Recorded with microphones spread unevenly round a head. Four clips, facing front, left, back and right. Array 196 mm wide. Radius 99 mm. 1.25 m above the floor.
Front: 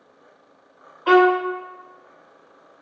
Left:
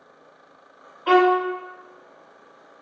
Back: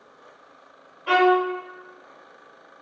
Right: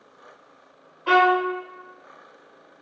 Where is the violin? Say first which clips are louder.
Left 1 dB, front 3 dB; 10° left, 0.8 m.